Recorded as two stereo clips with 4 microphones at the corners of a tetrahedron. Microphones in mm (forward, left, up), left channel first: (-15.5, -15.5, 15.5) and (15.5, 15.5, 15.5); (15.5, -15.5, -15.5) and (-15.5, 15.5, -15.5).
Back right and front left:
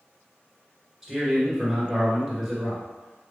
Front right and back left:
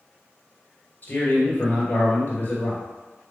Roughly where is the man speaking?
Ahead right.